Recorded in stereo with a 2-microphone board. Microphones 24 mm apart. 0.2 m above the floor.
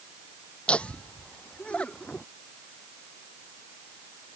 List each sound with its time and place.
0.7 s laughter: 50° left (ahead or behind)